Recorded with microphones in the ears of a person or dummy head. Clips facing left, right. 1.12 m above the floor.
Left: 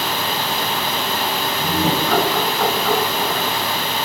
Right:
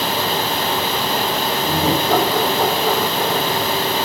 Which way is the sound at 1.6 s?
15° right (ahead or behind).